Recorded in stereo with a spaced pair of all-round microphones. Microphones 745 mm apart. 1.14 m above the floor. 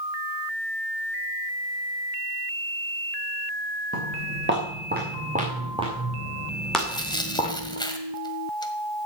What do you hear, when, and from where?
3.9 s footsteps: 15° right (ahead or behind), 7 m; by 7.8 s 15° left (ahead or behind), 3.5 m
6.8 s tearing paper: 5° left (ahead or behind), 1.6 m